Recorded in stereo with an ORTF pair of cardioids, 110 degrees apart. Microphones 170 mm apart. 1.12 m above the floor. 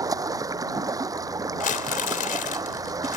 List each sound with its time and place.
0.0 s running water: 20° right
1.6 s crumpling: 55° left